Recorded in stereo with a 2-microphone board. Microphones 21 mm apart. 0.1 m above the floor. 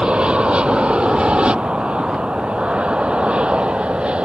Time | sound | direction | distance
0.0 | an aircraft | 60° right (ahead or behind) | ?